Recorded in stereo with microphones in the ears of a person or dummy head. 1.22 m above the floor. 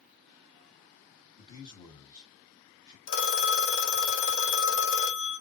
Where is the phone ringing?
60° left (ahead or behind), 1.3 m.